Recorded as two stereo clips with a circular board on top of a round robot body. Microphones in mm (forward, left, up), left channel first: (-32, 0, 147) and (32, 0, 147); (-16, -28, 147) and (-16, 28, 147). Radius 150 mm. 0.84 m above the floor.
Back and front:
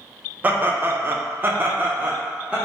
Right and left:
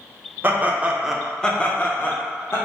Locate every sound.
0.4 s laughter: 55° left, 0.8 m; by 2.6 s 65° right, 1.0 m